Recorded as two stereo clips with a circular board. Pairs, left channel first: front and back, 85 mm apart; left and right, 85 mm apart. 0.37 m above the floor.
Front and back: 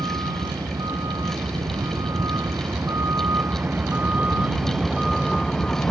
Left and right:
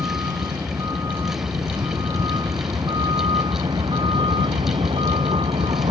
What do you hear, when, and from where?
0.0 s a vehicle: 140° right; by 5.9 s 80° right